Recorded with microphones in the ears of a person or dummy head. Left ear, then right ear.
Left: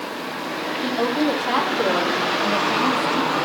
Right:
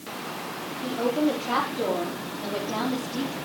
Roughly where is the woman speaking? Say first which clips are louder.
Left 3 dB; left.